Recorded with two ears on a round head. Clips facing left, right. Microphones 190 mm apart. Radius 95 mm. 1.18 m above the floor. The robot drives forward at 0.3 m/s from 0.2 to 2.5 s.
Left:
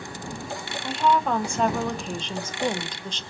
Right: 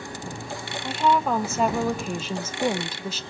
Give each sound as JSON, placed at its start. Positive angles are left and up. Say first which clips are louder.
{"t": 0.8, "sound": "a woman speaking", "louder": "even", "side_deg": -5, "distance_m": 1.3}